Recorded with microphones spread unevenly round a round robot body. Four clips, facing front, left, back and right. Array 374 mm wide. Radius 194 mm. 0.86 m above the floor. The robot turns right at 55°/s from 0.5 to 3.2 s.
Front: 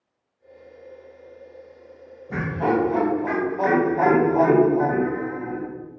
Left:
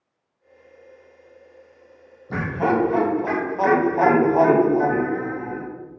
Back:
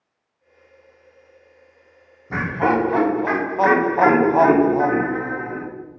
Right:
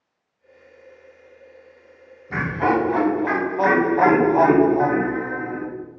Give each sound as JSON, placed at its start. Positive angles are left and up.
{"t": 2.3, "sound": "laughter", "azimuth_deg": 120, "distance_m": 0.9}